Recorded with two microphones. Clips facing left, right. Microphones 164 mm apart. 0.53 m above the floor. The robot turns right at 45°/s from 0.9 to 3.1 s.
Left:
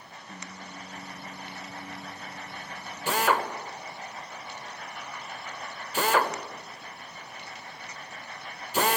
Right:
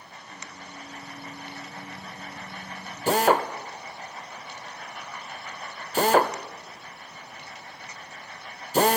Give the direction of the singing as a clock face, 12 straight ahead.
8 o'clock.